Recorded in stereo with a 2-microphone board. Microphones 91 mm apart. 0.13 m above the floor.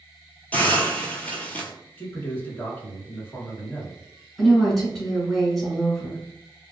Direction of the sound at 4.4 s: 5° left (ahead or behind).